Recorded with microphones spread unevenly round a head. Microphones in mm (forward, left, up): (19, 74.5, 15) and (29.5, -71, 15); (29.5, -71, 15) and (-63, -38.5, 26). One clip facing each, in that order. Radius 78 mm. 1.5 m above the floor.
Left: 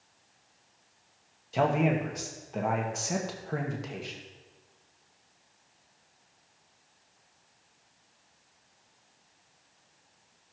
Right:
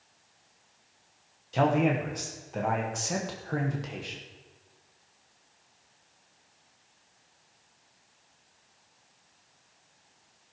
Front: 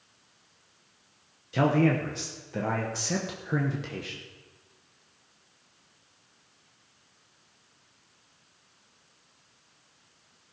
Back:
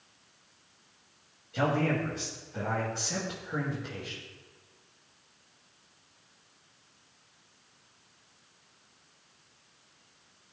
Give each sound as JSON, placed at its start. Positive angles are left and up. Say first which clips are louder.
{"t": 1.5, "sound": "a man speaking", "louder": "right 1 dB, front 5 dB", "azimuth_deg": 5, "distance_m": 1.2}